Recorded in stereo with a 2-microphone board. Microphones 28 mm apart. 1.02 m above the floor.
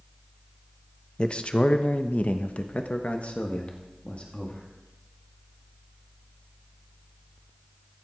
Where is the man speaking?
35° left (ahead or behind), 0.9 m; by 4.7 s 45° left (ahead or behind), 2 m.